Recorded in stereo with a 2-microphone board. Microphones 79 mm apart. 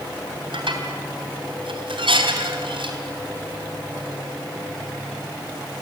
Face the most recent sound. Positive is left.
turn(degrees=-80)